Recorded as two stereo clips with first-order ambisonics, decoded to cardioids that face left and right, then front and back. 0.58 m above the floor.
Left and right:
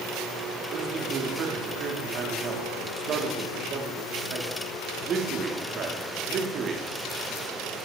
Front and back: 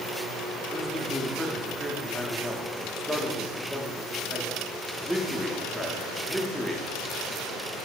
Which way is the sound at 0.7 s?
90° right.